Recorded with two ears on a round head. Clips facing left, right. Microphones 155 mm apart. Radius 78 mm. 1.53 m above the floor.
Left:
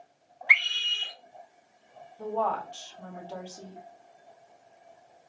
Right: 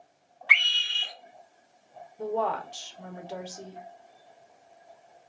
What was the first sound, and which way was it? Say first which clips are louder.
A scream: right 1 dB; 15° left (ahead or behind).